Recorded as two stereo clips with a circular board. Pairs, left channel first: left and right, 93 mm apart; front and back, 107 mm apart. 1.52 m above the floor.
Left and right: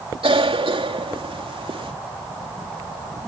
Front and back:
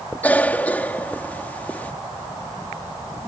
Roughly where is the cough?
Right.